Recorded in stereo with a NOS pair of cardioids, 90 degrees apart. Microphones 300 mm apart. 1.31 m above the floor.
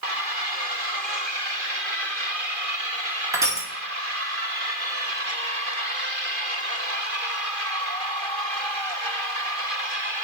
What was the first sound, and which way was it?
Crushing, 10° right.